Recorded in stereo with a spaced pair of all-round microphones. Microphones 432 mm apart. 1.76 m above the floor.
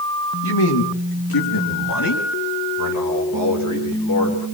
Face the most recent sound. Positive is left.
turn(degrees=40)  # may be behind; listen again after turning